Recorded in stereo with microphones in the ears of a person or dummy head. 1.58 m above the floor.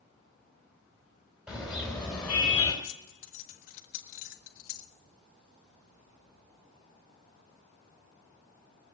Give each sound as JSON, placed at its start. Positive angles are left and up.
{"t": 1.5, "sound": "a car horn", "side_deg": 0, "distance_m": 4.0}
{"t": 2.8, "sound": "keys jangling", "side_deg": 45, "distance_m": 1.5}